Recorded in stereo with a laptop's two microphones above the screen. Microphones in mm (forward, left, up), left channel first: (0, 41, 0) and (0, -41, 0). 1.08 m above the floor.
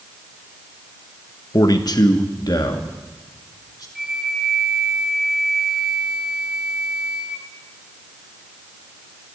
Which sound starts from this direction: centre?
A flute, at 4.0 s.